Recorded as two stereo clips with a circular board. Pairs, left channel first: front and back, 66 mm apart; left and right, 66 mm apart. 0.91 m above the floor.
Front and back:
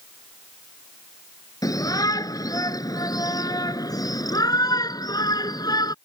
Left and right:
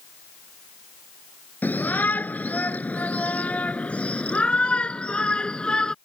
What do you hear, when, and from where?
1.6 s a shout: 25° left; by 6.0 s 10° left